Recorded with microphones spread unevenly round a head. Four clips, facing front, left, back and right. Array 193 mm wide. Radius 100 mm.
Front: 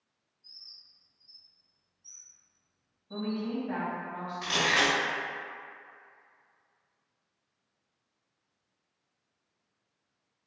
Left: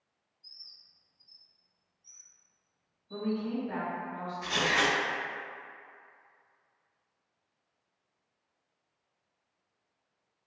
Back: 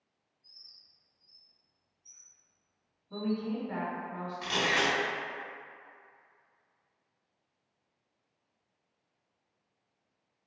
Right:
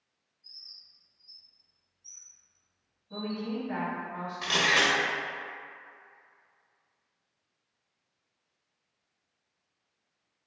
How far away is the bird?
About 1.9 m.